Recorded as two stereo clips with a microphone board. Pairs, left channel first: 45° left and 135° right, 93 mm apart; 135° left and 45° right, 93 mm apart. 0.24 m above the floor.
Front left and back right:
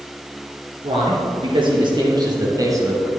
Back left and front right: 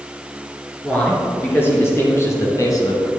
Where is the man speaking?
155° right, 3.5 m; by 3.1 s 170° left, 2 m.